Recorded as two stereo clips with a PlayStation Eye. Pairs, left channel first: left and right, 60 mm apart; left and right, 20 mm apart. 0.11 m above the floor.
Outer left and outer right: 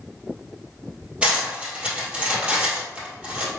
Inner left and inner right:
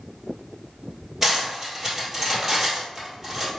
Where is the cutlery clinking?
20° right (ahead or behind), 1.7 m.